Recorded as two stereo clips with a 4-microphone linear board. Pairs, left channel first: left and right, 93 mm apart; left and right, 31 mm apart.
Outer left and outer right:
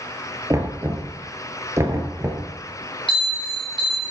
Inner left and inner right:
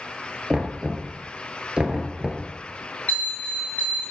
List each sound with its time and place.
0.5 s knocking: 30° right (ahead or behind), 1.4 m
3.1 s a bell: 60° left (ahead or behind), 5 m